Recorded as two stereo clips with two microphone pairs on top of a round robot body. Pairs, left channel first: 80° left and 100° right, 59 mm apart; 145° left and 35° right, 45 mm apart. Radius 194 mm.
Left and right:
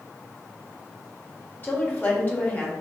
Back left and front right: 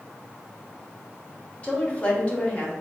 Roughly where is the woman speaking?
Behind left.